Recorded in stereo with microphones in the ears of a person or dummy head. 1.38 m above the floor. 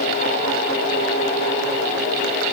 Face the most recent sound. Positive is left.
No sound to turn to.